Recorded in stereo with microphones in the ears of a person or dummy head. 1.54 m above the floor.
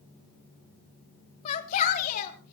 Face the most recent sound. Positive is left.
turn(degrees=40)  # may be behind; listen again after turning